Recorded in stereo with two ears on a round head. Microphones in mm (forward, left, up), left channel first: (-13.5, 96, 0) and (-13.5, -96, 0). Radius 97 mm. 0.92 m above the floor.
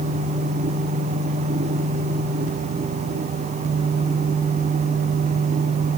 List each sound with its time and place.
Only background noise.